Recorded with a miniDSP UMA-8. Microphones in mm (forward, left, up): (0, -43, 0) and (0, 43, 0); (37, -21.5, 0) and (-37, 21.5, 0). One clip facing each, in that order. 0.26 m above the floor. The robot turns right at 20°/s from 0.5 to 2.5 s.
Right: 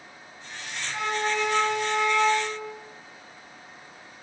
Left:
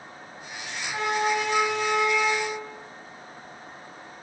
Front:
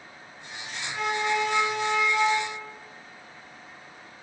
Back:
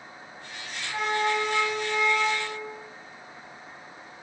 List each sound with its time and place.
0.8 s a flute: 65° left, 4.5 m; by 2.7 s 95° left, 4.5 m